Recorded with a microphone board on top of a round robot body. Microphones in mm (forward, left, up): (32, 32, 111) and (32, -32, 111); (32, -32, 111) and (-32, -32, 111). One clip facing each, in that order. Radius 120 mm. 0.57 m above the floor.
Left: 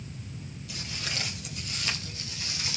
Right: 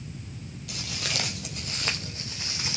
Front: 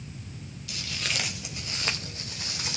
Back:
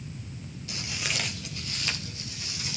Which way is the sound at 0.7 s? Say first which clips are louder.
Right 3 dB, even; 130° right.